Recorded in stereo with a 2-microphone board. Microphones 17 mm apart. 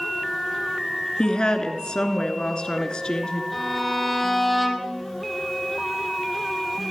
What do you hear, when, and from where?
1.2 s a woman speaking: 55° left (ahead or behind), 2.5 m
3.5 s a violin: centre (ahead or behind), 4 m